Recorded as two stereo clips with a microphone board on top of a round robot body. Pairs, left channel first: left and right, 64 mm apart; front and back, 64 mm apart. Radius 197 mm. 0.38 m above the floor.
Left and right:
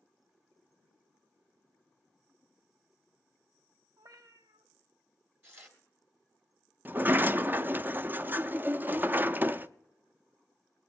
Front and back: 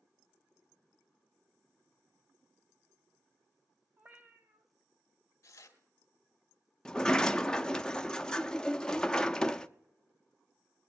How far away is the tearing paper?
About 2.5 m.